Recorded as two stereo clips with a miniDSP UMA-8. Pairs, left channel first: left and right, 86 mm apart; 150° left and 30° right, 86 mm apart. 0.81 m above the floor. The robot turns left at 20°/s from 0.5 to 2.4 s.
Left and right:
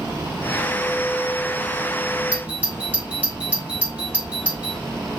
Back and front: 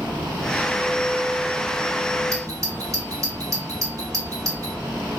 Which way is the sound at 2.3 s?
25° right.